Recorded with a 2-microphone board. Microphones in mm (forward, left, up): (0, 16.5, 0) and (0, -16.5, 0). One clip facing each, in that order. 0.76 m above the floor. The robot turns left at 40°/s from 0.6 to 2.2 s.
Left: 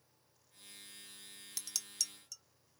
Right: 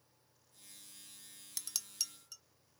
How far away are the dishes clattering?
About 0.5 m.